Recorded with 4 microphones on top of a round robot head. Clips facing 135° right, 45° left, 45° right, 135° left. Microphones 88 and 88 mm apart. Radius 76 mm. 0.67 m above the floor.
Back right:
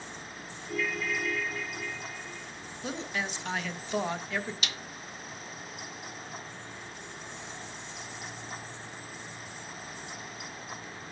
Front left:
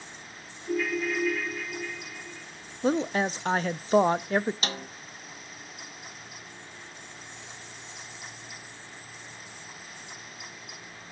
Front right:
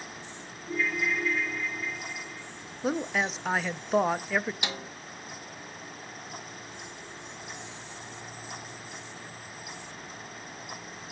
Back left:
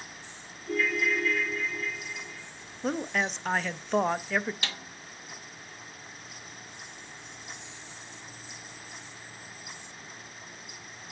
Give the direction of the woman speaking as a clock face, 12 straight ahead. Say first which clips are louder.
Front left 10 dB, front right 1 dB; 11 o'clock.